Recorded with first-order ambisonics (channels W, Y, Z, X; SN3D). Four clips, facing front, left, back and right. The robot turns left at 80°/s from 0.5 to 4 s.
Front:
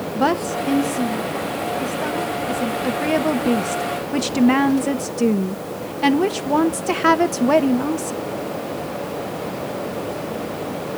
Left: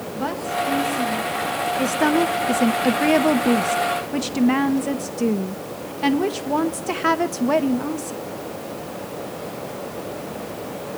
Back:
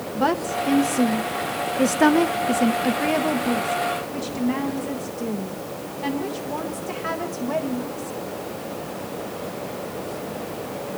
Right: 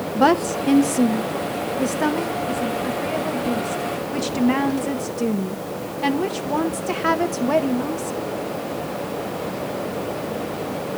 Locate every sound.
0.1 s a woman speaking: 70° right, 0.7 m; by 8.2 s 10° left, 0.7 m